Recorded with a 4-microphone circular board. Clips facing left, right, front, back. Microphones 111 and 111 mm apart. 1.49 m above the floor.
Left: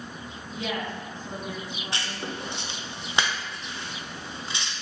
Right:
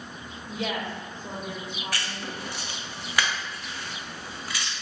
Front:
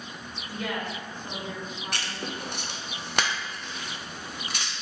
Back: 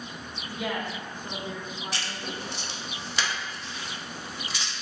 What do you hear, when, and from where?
0.5 s a woman speaking: 105° right, 1.4 m
1.9 s writing: 25° left, 0.6 m